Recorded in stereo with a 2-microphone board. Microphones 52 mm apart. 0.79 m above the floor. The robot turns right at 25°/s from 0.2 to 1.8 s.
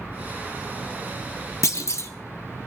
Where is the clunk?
65° left (ahead or behind), 1.0 m.